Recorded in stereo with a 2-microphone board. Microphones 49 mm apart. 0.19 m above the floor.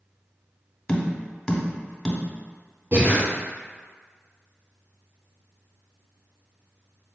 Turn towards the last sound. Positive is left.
turn(degrees=-45)  # may be behind; listen again after turning